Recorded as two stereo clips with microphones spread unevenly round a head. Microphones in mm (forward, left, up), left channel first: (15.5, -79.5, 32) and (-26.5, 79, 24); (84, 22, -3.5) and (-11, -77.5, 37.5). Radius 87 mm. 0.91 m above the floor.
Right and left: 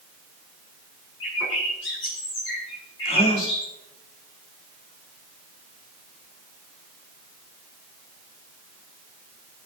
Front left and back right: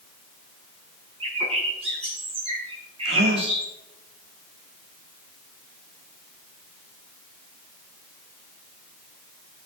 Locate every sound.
1.2 s a bird: 85° right, 6 m
3.0 s a gasp: 130° right, 1.7 m